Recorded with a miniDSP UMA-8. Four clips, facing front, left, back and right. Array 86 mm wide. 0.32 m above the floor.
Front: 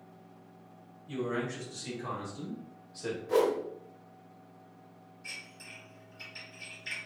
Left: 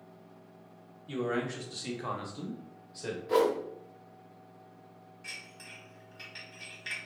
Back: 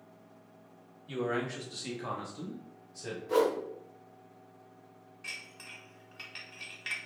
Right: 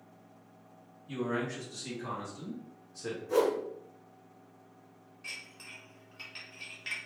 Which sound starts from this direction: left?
A whoosh, at 3.3 s.